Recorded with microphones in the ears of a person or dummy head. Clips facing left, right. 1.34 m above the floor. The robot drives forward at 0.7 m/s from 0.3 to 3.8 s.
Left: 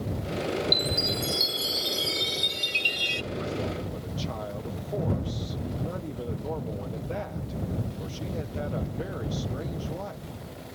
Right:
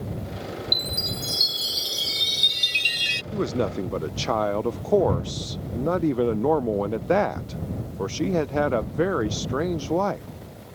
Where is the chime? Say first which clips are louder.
Left 4 dB; 15° right (ahead or behind); by 3.2 s 30° right (ahead or behind).